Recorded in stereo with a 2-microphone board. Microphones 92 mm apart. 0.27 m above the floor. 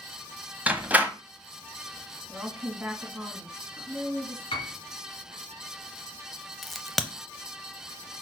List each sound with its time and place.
0.7 s a door slam: 15° right (ahead or behind), 1.0 m
2.3 s a woman speaking: 15° right (ahead or behind), 2.5 m
4.5 s a piano: 65° left (ahead or behind), 1.4 m
6.6 s a crack: centre (ahead or behind), 0.7 m